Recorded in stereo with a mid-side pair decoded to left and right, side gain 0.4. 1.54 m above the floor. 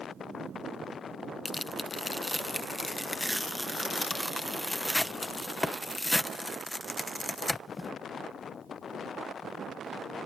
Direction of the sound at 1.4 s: 15° left.